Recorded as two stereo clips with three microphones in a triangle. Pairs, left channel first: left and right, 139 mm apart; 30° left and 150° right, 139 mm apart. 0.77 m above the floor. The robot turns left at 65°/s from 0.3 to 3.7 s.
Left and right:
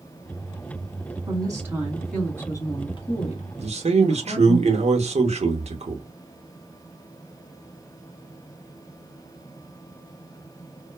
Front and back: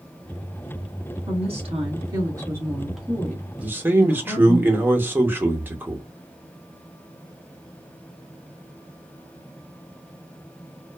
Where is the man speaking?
70° right, 0.7 m; by 6.0 s 75° right, 0.7 m.